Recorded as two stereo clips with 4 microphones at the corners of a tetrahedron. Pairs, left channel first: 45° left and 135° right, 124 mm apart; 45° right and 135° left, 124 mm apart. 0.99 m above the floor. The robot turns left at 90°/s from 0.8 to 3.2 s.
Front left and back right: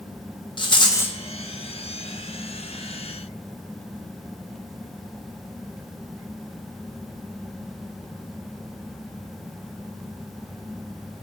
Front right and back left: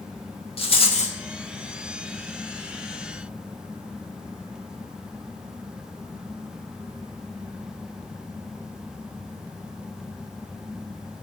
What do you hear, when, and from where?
0.6 s a rattle: 5° right, 1.0 m; by 1.2 s 40° right, 1.0 m